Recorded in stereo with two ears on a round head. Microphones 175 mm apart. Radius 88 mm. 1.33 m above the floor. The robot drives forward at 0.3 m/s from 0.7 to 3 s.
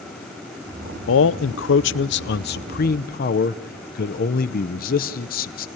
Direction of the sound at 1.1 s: 70° left (ahead or behind).